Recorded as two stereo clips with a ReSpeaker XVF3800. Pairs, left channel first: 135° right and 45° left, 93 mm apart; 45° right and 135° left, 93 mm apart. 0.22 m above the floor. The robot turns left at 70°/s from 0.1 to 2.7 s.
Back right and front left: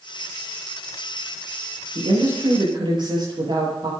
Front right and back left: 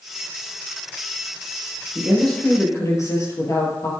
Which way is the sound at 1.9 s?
60° left.